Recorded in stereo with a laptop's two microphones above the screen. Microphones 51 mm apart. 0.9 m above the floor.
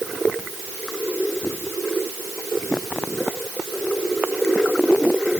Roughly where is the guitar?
No guitar in this recording.